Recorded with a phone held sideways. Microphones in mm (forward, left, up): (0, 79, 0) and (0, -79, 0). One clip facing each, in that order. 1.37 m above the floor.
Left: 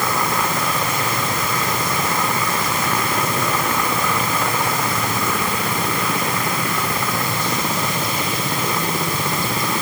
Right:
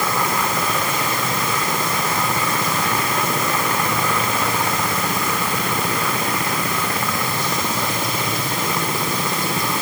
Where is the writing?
I don't hear writing.